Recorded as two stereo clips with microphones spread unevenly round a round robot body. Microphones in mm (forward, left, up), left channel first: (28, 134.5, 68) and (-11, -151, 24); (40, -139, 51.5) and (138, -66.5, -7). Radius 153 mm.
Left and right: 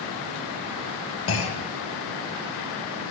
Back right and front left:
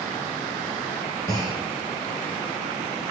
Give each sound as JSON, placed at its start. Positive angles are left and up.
{"t": 1.3, "sound": "a clunk", "azimuth_deg": 135, "distance_m": 0.7}